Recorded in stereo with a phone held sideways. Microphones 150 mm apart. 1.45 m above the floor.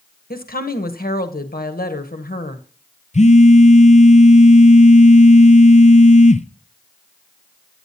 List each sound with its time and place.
0.3 s a woman speaking: 75° left (ahead or behind), 1.3 m
3.1 s a phone buzzing: 50° left (ahead or behind), 0.6 m